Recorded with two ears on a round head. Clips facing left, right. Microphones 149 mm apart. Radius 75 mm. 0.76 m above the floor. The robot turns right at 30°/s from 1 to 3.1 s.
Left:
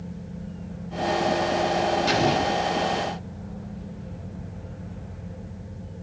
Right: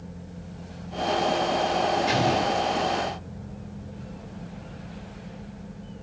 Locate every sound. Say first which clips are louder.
2.1 s an explosion: left 1 dB; 55° left (ahead or behind), 3 m; by 2.6 s 70° left (ahead or behind), 3 m